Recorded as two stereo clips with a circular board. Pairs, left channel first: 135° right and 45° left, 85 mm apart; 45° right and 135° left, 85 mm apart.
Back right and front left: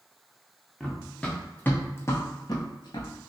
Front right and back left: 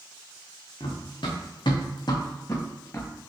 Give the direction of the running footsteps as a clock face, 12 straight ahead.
1 o'clock.